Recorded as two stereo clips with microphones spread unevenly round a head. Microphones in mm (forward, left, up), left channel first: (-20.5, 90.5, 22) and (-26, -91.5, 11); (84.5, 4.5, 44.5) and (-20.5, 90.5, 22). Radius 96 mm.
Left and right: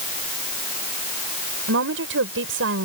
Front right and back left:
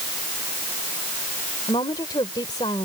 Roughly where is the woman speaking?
Right.